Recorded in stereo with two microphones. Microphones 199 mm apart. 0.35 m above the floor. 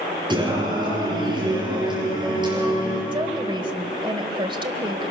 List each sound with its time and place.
0.3 s singing: 20° right (ahead or behind), 5.5 m
3.1 s a woman speaking: 25° right (ahead or behind), 1.6 m